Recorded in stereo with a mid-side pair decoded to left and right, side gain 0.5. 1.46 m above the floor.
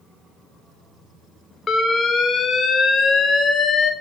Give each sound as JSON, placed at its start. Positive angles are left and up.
{"t": 1.7, "sound": "an alarm", "azimuth_deg": 40, "distance_m": 0.9}